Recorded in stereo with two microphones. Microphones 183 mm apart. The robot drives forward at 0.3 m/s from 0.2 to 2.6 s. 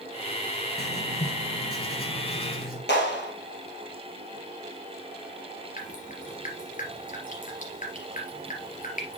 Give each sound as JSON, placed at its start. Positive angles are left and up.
{"t": 0.8, "sound": "writing", "side_deg": 60, "distance_m": 2.0}
{"t": 2.9, "sound": "a clap", "side_deg": 65, "distance_m": 4.0}
{"t": 5.8, "sound": "dripping", "side_deg": 45, "distance_m": 3.0}